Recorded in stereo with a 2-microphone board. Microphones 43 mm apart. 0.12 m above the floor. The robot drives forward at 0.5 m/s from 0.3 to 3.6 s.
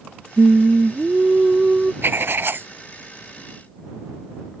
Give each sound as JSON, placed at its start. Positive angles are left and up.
{"t": 0.4, "sound": "singing", "side_deg": -30}
{"t": 2.0, "sound": "writing", "side_deg": -60}